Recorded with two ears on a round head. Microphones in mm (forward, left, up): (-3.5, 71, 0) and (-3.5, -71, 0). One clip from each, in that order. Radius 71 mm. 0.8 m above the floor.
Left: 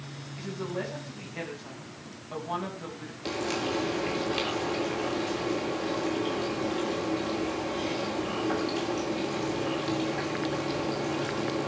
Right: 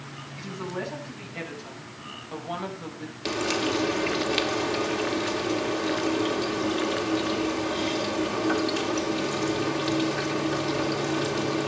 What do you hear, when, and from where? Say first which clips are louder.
0.4 s a woman speaking: right 1 dB; 5° right (ahead or behind), 6 m; by 3.1 s 15° right (ahead or behind), 4.5 m
3.2 s frying: right 4 dB; 35° right (ahead or behind), 2.5 m